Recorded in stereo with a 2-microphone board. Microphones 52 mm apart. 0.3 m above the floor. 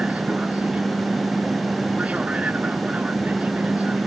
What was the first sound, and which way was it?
An aircraft, 25° right (ahead or behind).